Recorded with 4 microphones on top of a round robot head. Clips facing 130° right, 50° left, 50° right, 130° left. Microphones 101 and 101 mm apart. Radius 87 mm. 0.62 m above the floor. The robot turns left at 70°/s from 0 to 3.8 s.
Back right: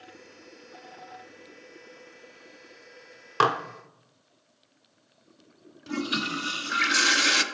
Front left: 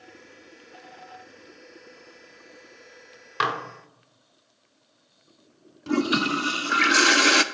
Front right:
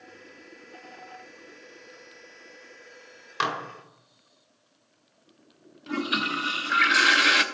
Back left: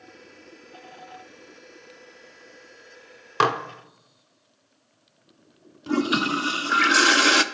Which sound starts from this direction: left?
A toilet flushing, at 5.9 s.